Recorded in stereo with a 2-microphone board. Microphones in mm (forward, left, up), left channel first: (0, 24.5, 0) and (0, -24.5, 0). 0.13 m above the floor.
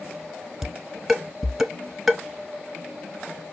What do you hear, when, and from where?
0.6 s dishes clattering: 5° right (ahead or behind), 1.0 m